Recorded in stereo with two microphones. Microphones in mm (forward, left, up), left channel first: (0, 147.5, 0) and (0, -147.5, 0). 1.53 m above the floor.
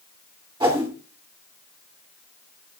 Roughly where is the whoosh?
Centre.